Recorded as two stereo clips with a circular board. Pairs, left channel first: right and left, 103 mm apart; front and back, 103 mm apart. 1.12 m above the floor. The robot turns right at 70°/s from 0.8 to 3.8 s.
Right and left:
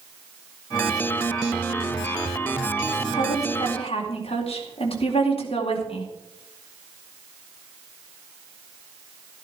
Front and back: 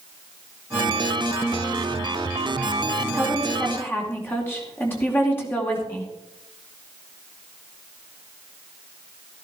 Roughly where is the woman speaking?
Behind right.